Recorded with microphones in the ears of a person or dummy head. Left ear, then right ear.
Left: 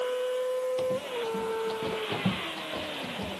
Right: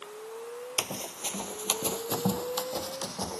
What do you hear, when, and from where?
0.8 s running footsteps: 40° right (ahead or behind); by 3.4 s 50° right (ahead or behind)